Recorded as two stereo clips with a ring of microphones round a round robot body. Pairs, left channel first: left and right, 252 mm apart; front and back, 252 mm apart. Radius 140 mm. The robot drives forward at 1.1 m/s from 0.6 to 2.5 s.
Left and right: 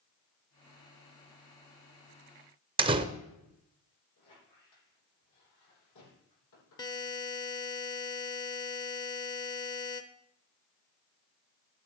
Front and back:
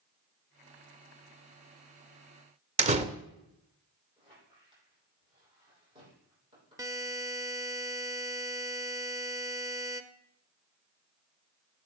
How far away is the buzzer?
About 0.8 m.